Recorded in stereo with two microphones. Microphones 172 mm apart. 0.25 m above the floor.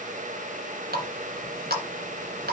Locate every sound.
0.9 s a running tap: 60° right (ahead or behind), 1.8 m